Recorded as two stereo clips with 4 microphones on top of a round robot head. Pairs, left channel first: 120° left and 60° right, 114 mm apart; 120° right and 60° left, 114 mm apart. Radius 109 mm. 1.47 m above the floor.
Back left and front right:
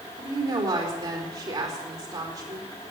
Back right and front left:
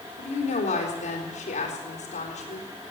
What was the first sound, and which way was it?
A woman speaking, 120° right.